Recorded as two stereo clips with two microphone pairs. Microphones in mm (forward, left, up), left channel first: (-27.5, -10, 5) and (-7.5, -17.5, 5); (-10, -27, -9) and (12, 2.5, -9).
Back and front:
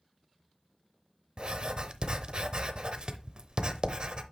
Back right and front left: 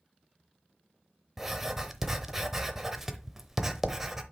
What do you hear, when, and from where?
1.4 s writing: 25° right, 0.7 m